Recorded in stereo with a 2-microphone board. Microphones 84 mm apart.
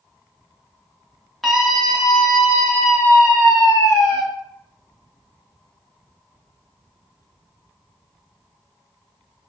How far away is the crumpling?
I don't hear crumpling.